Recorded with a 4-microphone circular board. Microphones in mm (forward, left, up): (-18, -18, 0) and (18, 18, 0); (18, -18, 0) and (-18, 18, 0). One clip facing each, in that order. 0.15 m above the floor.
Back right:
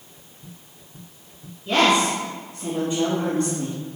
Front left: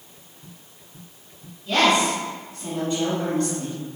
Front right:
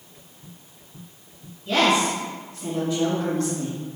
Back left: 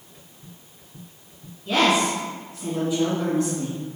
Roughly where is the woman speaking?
Behind.